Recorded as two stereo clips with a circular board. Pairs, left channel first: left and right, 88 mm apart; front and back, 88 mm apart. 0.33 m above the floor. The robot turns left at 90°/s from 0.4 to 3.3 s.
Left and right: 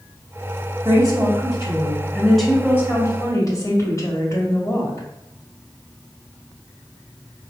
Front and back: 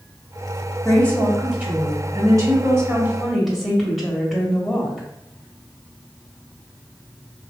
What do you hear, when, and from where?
0.8 s a woman speaking: 45° right, 1.8 m; by 5.1 s 95° left, 1.8 m